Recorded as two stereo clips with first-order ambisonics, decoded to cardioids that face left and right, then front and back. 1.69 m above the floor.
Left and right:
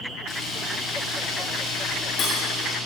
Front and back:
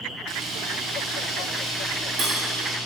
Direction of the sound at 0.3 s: 140° left.